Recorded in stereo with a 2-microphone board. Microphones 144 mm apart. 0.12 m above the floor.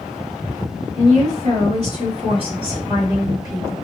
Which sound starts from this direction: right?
A woman speaking, at 0.9 s.